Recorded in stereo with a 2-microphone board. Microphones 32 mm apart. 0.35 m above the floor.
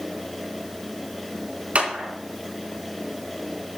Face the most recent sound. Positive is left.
turn(degrees=-50)  # may be behind; listen again after turning